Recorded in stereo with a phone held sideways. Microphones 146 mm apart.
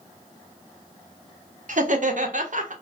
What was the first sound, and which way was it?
Laughter, 60° right (ahead or behind).